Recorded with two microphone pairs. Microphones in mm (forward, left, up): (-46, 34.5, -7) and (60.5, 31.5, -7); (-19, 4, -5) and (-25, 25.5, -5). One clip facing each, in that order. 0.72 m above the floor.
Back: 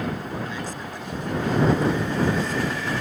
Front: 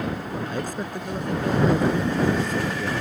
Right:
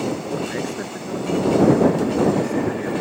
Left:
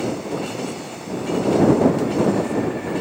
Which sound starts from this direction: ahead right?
A man speaking, at 0.5 s.